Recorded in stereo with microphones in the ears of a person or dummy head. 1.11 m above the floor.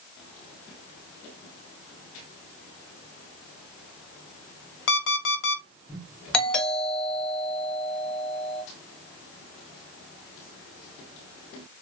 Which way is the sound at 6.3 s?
5° left (ahead or behind).